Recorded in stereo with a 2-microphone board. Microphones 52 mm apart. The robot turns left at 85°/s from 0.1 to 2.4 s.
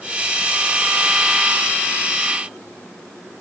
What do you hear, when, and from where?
Only background noise.